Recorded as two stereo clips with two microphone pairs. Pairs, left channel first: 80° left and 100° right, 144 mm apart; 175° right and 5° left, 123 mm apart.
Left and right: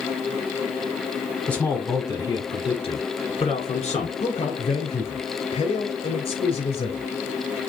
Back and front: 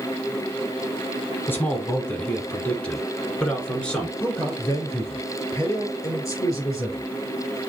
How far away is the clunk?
I don't hear a clunk.